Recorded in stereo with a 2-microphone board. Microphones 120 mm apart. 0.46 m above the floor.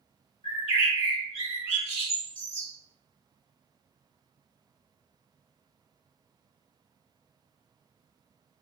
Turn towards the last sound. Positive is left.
turn(degrees=50)  # may be behind; listen again after turning